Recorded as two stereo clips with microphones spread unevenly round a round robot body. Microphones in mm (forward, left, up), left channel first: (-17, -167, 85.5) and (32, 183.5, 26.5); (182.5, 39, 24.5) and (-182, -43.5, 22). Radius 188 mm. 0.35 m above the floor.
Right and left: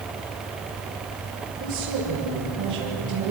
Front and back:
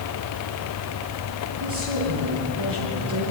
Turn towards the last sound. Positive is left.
turn(degrees=135)